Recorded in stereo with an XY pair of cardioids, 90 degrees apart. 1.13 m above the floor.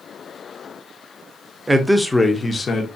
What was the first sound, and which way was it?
A man speaking, 20° right.